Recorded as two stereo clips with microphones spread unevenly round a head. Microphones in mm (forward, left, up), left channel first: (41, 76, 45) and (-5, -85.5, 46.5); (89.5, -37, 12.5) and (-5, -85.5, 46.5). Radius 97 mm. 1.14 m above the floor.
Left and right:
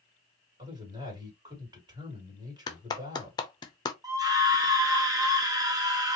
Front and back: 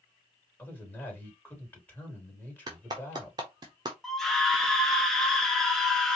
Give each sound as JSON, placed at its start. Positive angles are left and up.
{"t": 0.6, "sound": "a man speaking", "azimuth_deg": -40, "distance_m": 2.5}
{"t": 2.7, "sound": "a clap", "azimuth_deg": 140, "distance_m": 0.8}
{"t": 4.0, "sound": "a scream", "azimuth_deg": -45, "distance_m": 0.7}